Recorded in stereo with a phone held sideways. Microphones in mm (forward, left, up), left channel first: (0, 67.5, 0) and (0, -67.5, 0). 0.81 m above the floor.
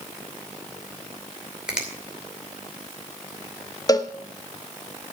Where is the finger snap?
5° right (ahead or behind), 2.5 m.